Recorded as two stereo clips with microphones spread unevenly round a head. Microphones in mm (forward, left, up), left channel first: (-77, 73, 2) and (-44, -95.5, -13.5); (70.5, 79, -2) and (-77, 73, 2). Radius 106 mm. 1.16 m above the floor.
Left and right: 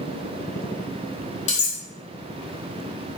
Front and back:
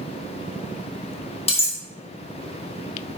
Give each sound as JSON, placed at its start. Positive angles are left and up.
{"t": 1.5, "sound": "cutlery clinking", "azimuth_deg": 50, "distance_m": 0.9}